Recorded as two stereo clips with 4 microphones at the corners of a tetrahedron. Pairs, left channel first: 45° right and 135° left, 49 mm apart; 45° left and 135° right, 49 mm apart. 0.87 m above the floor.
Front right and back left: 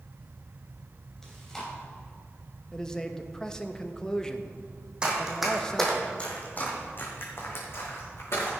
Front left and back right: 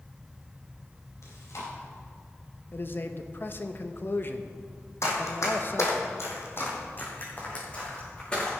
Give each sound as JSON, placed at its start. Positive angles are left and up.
{"t": 1.2, "sound": "chewing", "azimuth_deg": 30, "distance_m": 3.0}
{"t": 2.7, "sound": "a man speaking", "azimuth_deg": 25, "distance_m": 0.7}
{"t": 5.0, "sound": "running footsteps", "azimuth_deg": 60, "distance_m": 2.5}